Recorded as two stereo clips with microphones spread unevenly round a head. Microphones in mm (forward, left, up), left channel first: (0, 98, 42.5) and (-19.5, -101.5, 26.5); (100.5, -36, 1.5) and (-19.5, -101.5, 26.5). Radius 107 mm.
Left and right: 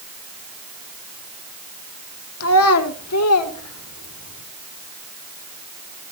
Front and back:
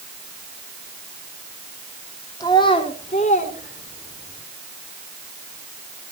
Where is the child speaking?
100° left, 1.6 m; by 4.4 s 70° left, 3.5 m.